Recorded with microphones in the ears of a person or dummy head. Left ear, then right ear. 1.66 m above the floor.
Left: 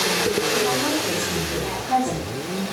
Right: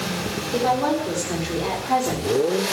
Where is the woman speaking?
40° right (ahead or behind), 5 m; by 2.3 s 35° right (ahead or behind), 4 m.